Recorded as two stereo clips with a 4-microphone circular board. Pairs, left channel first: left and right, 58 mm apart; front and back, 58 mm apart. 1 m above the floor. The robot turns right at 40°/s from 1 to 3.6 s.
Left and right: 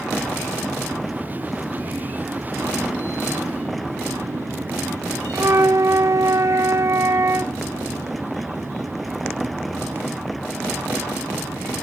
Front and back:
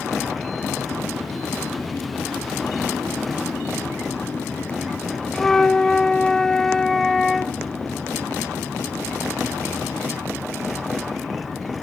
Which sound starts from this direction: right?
A flute, at 5.3 s.